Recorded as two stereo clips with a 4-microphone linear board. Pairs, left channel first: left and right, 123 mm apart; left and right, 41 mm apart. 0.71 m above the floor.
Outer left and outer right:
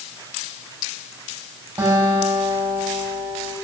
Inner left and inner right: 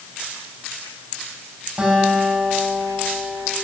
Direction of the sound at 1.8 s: 20° right (ahead or behind).